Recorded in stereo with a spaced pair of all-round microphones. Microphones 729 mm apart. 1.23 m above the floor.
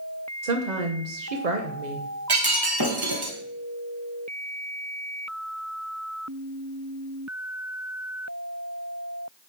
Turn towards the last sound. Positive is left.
turn(degrees=-30)  # may be behind; listen again after turning